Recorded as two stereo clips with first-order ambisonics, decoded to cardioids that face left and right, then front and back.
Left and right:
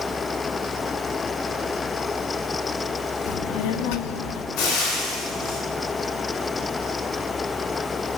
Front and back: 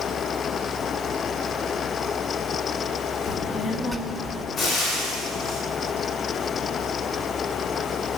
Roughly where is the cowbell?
I don't hear a cowbell.